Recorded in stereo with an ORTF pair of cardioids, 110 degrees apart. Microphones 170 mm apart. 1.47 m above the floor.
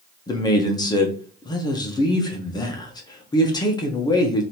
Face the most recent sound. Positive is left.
turn(degrees=25)